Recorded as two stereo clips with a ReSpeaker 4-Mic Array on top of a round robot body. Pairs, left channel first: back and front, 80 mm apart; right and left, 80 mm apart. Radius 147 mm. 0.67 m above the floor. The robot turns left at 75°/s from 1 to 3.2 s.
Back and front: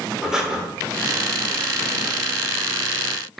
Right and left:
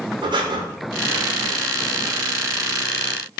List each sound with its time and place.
0.2 s breathing: 85° left, 0.7 m